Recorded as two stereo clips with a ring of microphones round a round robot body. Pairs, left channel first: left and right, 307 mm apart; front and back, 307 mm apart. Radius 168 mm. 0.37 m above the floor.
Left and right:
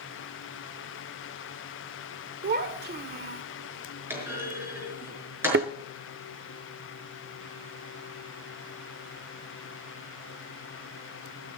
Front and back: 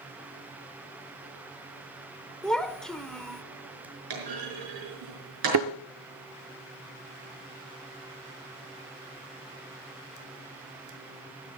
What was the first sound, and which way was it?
A child speaking, 85° right.